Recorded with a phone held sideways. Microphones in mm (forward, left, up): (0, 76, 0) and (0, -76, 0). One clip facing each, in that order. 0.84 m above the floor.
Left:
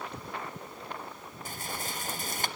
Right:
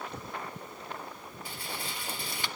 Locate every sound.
1.4 s a rattle: 45° left (ahead or behind), 0.6 m